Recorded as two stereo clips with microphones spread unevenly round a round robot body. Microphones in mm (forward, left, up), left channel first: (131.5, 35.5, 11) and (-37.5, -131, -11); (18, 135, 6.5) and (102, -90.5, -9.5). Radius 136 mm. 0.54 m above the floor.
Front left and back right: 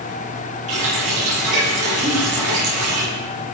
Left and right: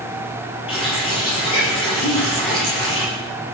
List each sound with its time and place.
0.7 s a running tap: straight behind, 9 m
2.0 s a giggle: 145° left, 9.5 m